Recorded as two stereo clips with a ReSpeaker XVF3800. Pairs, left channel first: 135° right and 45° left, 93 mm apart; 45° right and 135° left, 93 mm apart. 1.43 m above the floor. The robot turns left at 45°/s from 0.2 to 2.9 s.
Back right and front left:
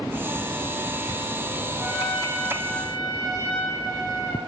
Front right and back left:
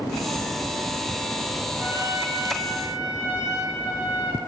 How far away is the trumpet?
About 1.6 m.